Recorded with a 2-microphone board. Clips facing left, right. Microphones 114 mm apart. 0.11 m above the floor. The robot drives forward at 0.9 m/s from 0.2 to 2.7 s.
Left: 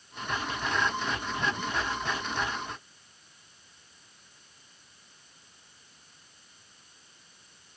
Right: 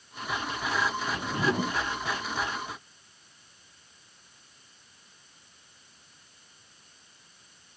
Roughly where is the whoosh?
Right.